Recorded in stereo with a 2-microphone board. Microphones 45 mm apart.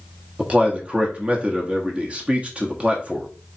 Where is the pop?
No pop in this recording.